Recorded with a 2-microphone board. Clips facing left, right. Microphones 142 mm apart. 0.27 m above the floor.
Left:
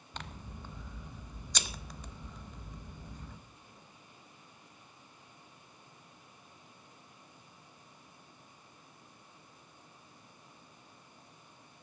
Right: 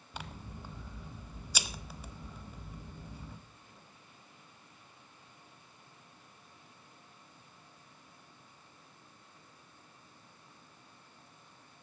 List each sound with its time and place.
0.1 s scissors: 10° right (ahead or behind), 1.0 m